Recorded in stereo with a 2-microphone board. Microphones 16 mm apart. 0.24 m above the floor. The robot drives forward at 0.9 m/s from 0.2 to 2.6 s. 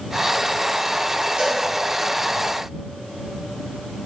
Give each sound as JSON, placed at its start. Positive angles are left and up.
{"t": 1.4, "sound": "a cowbell", "side_deg": -50, "distance_m": 1.7}